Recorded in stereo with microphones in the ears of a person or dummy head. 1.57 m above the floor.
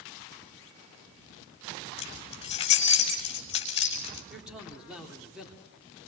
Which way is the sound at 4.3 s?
Centre (ahead or behind).